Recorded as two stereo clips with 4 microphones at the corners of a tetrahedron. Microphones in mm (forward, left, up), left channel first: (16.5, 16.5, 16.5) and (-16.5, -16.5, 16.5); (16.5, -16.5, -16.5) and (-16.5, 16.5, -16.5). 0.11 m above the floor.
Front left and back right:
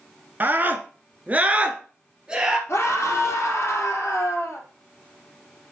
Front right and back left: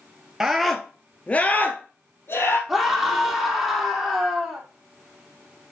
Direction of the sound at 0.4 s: 150° right.